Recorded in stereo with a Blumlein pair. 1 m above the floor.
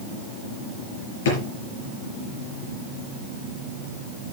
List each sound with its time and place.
1.2 s a drawer: 55° left, 5.5 m